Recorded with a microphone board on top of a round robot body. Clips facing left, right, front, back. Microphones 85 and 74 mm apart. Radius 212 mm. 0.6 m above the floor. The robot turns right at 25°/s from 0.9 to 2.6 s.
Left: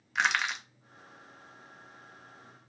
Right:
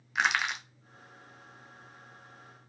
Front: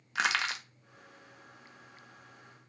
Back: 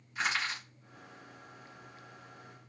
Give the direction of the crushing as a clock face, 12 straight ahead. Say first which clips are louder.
Even, front 3 dB; 12 o'clock.